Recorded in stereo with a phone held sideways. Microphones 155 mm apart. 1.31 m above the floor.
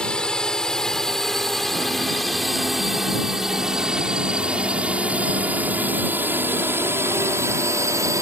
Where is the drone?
5° left (ahead or behind); by 8.2 s 20° right (ahead or behind).